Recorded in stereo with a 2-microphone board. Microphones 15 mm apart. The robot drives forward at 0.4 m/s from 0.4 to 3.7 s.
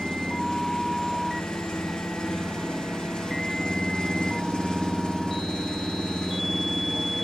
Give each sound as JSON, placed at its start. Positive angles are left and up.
{"t": 0.0, "sound": "an engine running", "side_deg": 60, "distance_m": 6.5}